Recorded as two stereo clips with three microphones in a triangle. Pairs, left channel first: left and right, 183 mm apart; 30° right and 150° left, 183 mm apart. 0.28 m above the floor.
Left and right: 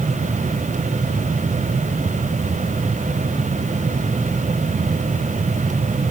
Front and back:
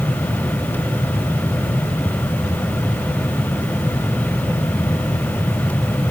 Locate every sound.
Only background noise.